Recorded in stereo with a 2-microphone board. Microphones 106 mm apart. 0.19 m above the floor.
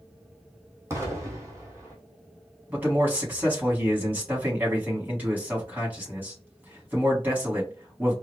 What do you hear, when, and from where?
0.9 s an explosion: 30° right (ahead or behind), 1.3 m
2.7 s a man speaking: 15° right (ahead or behind), 1.4 m